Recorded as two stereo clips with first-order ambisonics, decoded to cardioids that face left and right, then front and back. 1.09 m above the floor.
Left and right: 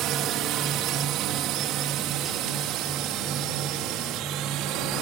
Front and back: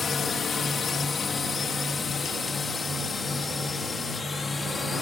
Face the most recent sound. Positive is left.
turn(degrees=-75)